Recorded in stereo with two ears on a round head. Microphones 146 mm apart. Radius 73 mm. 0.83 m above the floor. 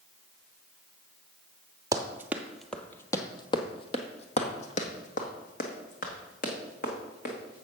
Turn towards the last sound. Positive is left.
turn(degrees=60)  # may be behind; listen again after turning